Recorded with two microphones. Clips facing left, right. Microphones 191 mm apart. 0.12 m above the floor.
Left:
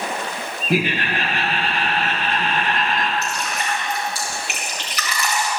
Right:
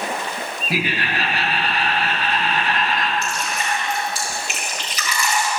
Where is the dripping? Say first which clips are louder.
Even; 65° left (ahead or behind), 4.5 m.